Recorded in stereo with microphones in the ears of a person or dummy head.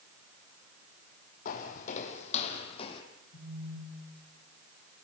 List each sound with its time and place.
1.4 s footsteps: 50° left (ahead or behind), 3 m; by 3.0 s 35° left (ahead or behind), 3.5 m
3.3 s a phone buzzing: 60° left (ahead or behind), 4 m